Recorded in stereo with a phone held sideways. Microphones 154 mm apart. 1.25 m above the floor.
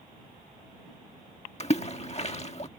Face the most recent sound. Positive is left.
turn(degrees=45)  # may be behind; listen again after turning